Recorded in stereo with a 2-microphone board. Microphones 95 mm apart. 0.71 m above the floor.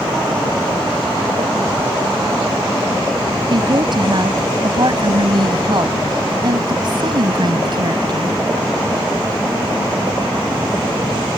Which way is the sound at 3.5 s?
50° right (ahead or behind).